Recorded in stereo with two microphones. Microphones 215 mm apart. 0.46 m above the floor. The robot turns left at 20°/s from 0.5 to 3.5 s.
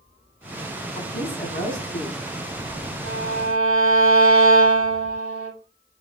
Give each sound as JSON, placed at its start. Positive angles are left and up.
{"t": 0.9, "sound": "a woman speaking", "side_deg": 45, "distance_m": 4.0}
{"t": 3.0, "sound": "a violin", "side_deg": 80, "distance_m": 5.5}